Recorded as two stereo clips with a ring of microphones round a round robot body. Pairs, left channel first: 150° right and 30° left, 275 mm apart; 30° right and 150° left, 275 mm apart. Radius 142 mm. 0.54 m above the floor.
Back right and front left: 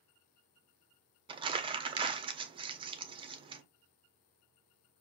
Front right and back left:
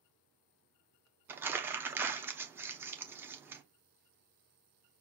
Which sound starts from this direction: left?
Crumpling, at 1.3 s.